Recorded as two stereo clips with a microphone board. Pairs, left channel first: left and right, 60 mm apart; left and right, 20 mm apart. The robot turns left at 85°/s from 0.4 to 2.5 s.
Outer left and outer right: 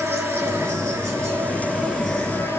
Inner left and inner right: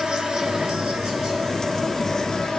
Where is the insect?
50° right, 4 m; by 2.6 s 130° left, 4 m.